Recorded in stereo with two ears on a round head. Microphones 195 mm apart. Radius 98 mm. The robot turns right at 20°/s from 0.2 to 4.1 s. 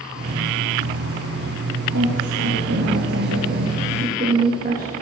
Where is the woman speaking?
85° right, 2.5 m; by 4.9 s 40° right, 2.5 m.